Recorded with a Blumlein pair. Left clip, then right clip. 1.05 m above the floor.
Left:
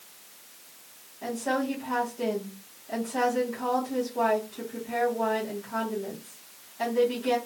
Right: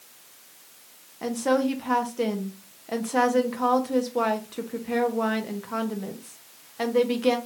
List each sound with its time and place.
1.2 s a woman speaking: 35° right, 1.1 m